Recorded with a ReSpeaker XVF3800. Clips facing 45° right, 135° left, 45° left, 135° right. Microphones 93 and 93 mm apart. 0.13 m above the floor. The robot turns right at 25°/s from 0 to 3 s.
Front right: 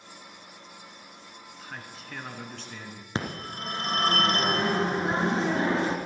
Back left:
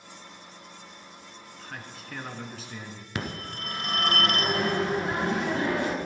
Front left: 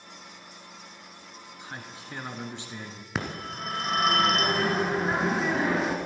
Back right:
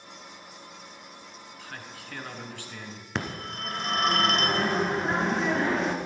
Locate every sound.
1.6 s a man speaking: 30° left, 1.2 m; by 3.0 s 65° left, 1.2 m
3.1 s a phone ringing: 40° right, 1.2 m